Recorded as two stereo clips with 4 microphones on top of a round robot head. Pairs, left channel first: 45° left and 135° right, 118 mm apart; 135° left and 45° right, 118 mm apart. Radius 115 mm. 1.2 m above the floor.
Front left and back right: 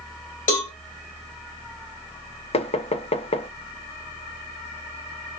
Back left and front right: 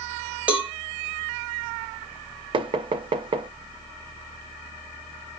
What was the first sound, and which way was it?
A cowbell, 35° left.